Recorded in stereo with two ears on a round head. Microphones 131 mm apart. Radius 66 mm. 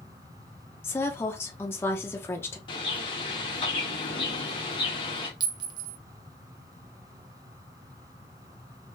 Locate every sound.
0.8 s a woman speaking: 15° left (ahead or behind), 0.6 m
2.7 s a bird: 35° left (ahead or behind), 1.3 m
5.4 s a clink: 30° right (ahead or behind), 0.7 m